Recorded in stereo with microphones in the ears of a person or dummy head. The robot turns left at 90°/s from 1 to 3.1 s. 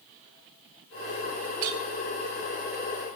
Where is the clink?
50° right (ahead or behind), 1.3 m.